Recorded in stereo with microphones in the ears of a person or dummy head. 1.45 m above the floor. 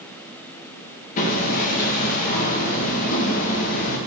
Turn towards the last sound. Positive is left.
turn(degrees=45)  # may be behind; listen again after turning